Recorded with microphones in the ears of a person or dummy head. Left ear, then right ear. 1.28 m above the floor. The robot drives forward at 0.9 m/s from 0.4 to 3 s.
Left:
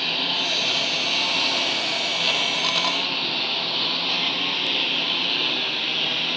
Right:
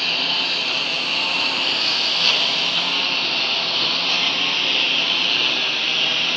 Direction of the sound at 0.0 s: 20° right (ahead or behind).